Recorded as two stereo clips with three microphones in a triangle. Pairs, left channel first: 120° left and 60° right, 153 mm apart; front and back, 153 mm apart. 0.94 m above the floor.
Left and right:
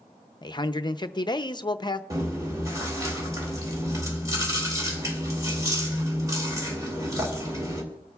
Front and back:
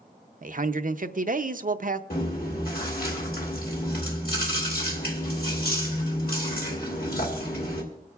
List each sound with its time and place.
0.4 s a man speaking: 175° left, 0.5 m
2.1 s chewing: 10° left, 2 m